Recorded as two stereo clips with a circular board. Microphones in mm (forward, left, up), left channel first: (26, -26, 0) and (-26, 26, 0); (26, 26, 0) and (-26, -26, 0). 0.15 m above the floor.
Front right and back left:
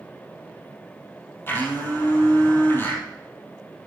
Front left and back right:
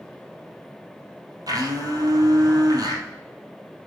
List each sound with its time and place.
1.5 s a blender: 105° right, 2.5 m